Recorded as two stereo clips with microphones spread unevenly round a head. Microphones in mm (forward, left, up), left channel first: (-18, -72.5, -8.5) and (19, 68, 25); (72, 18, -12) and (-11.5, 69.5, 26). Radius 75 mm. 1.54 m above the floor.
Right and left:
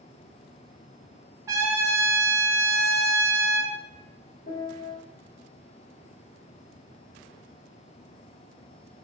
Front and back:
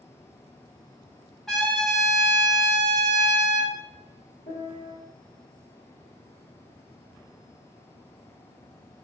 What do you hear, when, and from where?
1.5 s a trumpet: 90° left, 0.7 m
4.5 s a piano: 55° right, 1.4 m